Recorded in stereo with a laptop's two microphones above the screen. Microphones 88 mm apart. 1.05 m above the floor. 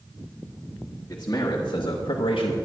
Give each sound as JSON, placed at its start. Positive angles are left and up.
{"t": 1.1, "sound": "a man speaking", "side_deg": 30, "distance_m": 1.7}